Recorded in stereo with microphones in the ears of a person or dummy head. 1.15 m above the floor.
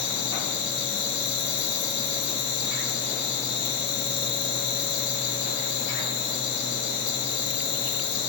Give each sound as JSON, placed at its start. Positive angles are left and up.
{"t": 0.0, "sound": "an insect", "side_deg": 75, "distance_m": 7.0}